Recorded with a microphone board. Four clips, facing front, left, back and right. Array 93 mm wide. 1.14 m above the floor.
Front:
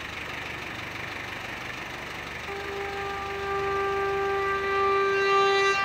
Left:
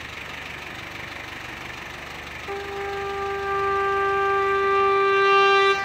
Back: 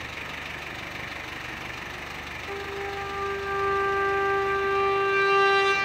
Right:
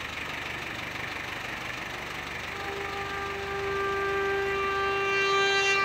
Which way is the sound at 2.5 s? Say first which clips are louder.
Left 7 dB, even; 85° left.